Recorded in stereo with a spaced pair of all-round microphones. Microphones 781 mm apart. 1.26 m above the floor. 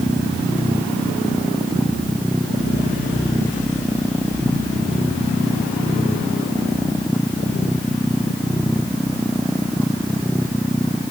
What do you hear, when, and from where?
0.0 s a machine running: centre (ahead or behind)